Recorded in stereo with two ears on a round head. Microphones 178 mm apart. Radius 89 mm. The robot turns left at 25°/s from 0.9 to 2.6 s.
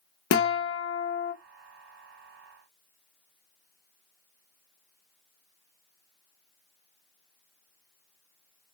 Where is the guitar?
65° left (ahead or behind), 0.5 m; by 1.3 s 55° left (ahead or behind), 0.5 m.